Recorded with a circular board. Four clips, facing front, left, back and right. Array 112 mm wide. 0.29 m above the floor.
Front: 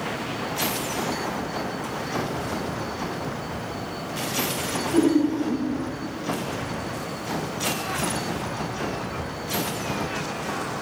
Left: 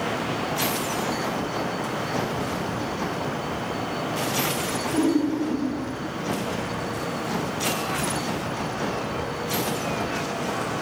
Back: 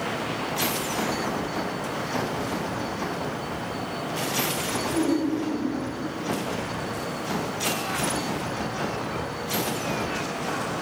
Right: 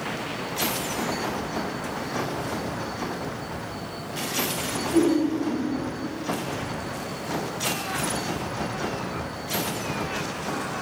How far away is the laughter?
About 3.5 m.